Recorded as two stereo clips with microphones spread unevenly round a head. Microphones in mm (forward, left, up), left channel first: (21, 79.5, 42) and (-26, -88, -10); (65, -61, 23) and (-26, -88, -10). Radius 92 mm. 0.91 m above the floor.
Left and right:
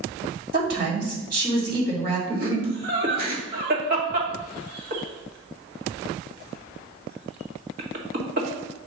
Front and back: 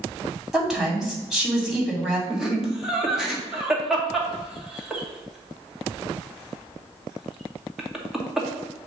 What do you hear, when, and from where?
0.5 s a woman speaking: 85° right, 3 m
2.3 s laughter: 85° right, 2.0 m